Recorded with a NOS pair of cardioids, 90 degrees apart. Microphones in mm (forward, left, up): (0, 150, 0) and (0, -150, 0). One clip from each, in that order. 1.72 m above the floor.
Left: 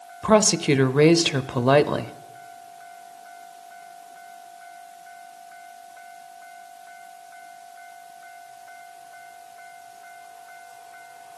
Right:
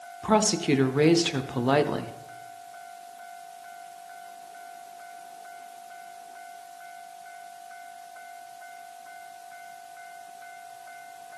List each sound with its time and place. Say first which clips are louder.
0.2 s a woman speaking: left 5 dB; 20° left, 0.6 m